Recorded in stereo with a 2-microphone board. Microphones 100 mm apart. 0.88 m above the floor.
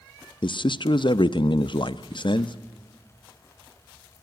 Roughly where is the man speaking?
Left.